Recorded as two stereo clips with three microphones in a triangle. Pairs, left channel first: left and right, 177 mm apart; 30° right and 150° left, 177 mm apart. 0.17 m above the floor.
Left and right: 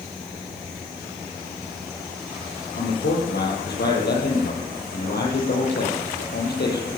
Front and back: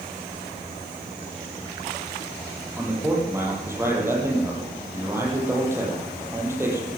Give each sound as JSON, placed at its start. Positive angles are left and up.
{"t": 2.8, "sound": "a man speaking", "azimuth_deg": 75, "distance_m": 5.0}